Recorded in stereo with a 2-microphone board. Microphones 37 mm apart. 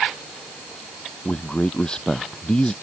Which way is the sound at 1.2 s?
20° left (ahead or behind).